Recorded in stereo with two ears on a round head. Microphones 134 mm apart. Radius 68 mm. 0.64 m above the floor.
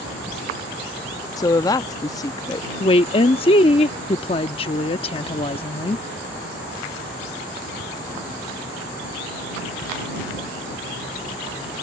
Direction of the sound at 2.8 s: 35° left (ahead or behind).